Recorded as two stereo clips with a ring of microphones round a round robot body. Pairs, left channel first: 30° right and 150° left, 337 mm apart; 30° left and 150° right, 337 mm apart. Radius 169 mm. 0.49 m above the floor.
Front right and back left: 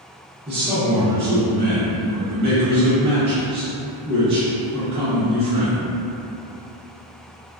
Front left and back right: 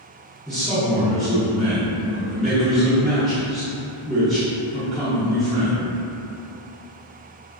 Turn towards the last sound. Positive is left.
turn(degrees=115)